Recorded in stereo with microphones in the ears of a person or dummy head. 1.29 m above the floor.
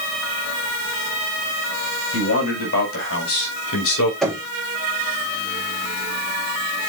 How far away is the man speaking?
About 4.5 m.